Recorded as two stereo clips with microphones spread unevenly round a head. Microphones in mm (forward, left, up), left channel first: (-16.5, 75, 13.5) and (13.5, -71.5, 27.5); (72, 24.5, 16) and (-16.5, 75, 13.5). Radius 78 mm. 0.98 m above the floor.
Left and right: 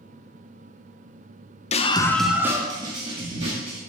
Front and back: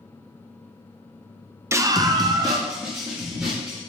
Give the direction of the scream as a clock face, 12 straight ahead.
9 o'clock.